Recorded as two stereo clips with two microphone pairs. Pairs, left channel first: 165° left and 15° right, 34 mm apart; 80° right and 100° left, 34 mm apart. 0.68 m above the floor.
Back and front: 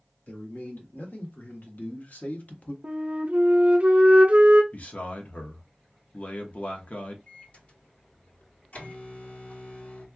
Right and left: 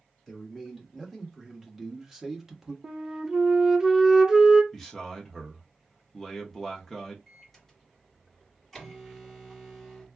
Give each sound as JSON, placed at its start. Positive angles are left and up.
{"t": 0.3, "sound": "a man speaking", "azimuth_deg": -175, "distance_m": 1.8}
{"t": 2.8, "sound": "a flute", "azimuth_deg": 25, "distance_m": 0.6}
{"t": 4.7, "sound": "a man speaking", "azimuth_deg": -165, "distance_m": 1.0}
{"t": 7.3, "sound": "a microwave", "azimuth_deg": -170, "distance_m": 1.8}